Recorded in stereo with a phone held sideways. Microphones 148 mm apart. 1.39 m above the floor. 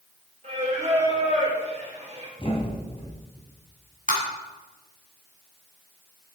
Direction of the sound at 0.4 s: 50° right (ahead or behind).